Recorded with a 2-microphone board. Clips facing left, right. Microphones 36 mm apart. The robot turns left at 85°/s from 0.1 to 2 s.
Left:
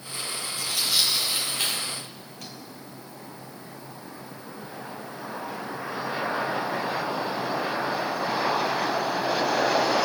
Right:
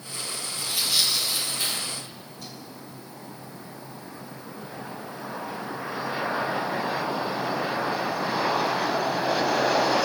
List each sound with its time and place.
0.6 s tearing paper: 25° right (ahead or behind), 3 m; by 2.5 s 85° left, 3 m